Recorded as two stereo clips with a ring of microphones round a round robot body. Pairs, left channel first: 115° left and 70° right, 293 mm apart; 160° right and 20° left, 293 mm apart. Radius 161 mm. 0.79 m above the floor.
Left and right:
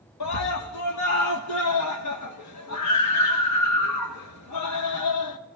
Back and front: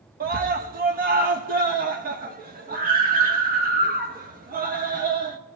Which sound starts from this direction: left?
A scream, at 0.2 s.